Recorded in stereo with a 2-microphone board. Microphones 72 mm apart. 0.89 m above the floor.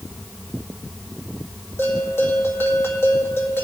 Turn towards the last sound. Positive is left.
turn(degrees=35)  # may be behind; listen again after turning